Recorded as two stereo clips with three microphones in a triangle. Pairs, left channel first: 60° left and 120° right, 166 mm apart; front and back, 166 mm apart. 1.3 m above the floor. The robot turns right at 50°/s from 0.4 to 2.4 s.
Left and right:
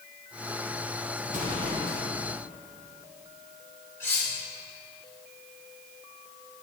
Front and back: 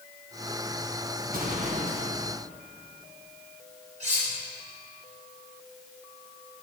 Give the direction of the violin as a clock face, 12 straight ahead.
I don't hear a violin.